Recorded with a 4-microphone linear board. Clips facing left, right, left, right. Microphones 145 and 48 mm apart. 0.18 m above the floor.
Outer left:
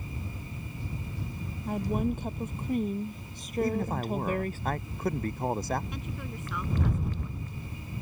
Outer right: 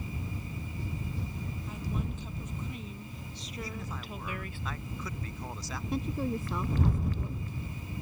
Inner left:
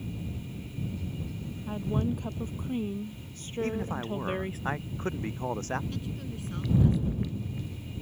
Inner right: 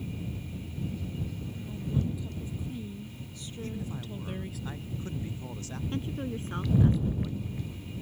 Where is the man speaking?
50° left (ahead or behind).